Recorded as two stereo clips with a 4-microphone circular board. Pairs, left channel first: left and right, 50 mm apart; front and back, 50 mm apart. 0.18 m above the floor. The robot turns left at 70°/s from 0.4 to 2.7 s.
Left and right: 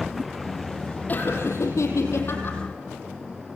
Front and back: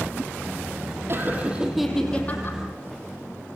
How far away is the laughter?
About 5 m.